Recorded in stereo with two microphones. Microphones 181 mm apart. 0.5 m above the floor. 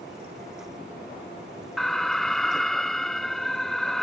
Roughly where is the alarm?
Centre.